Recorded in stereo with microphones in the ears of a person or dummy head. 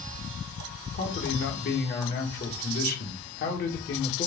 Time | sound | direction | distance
0.9 | a man speaking | 45° left (ahead or behind) | 2.5 m